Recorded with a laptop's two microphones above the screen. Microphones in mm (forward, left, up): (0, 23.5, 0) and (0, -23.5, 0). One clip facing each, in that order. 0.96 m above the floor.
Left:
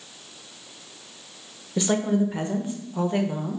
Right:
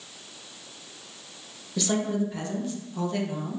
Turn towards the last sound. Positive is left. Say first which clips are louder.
# left 4 dB
turn(degrees=25)  # may be behind; listen again after turning